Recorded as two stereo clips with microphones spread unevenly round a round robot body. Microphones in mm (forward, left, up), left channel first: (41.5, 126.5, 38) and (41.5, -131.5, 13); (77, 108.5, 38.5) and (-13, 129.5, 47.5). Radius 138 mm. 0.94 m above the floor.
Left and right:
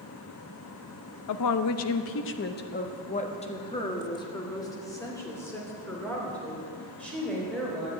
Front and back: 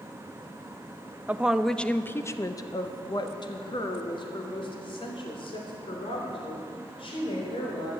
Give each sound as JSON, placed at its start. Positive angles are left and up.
{"t": 1.3, "sound": "a woman speaking", "azimuth_deg": 90, "distance_m": 0.8}